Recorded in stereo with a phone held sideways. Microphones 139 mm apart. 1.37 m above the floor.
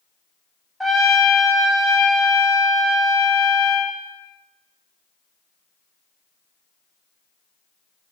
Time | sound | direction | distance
0.8 | a trumpet | centre (ahead or behind) | 0.7 m